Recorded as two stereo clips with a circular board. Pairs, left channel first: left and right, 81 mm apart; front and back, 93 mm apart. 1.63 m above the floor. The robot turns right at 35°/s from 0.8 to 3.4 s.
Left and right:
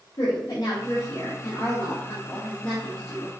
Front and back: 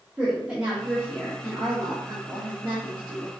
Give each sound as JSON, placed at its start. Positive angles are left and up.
{"t": 0.2, "sound": "a woman speaking", "azimuth_deg": 105, "distance_m": 0.7}